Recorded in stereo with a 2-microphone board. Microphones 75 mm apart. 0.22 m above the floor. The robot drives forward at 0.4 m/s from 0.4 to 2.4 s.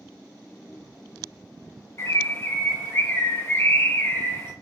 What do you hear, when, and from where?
2.0 s a bird: 35° left (ahead or behind), 1.1 m; by 4.5 s 30° left (ahead or behind), 1.2 m